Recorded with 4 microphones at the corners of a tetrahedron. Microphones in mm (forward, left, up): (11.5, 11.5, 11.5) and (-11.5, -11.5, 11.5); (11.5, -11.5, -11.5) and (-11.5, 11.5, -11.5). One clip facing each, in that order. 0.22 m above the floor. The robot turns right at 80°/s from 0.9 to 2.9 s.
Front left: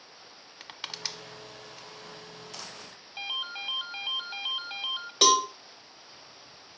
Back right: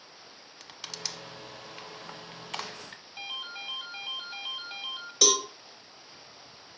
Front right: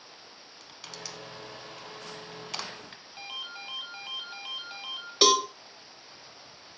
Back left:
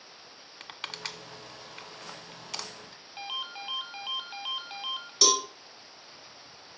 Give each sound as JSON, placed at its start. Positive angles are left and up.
{"t": 0.6, "sound": "crushing", "azimuth_deg": 105, "distance_m": 0.5}
{"t": 3.2, "sound": "a ringtone", "azimuth_deg": 85, "distance_m": 0.7}
{"t": 5.2, "sound": "a cowbell", "azimuth_deg": 10, "distance_m": 1.0}